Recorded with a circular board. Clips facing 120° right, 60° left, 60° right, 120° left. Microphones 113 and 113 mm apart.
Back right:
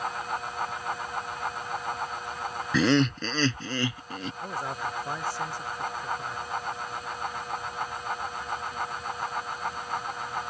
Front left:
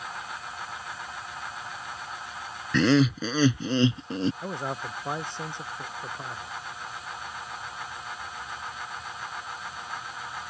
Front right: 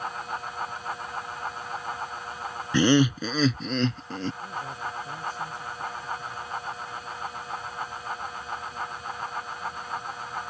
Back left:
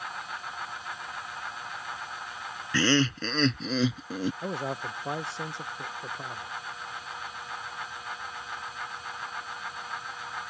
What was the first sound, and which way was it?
Laughter, 40° right.